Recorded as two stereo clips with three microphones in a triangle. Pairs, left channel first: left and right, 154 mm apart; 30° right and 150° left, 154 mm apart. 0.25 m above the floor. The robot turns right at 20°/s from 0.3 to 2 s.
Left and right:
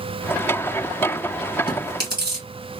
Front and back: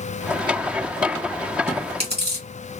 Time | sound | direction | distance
1.7 | chewing | 135° left | 2.0 m